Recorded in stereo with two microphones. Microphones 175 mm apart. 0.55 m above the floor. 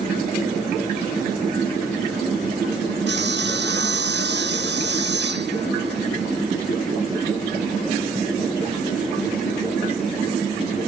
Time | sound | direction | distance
3.1 | sawing | 80° right | ?